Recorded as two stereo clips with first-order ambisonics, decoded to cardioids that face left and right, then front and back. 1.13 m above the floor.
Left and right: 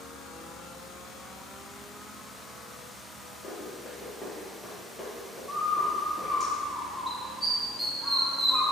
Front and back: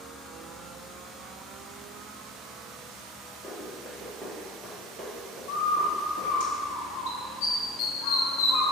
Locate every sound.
3.4 s running footsteps: 70° left, 1.2 m; by 6.4 s 170° right, 1.6 m
5.5 s a bird: straight ahead, 0.6 m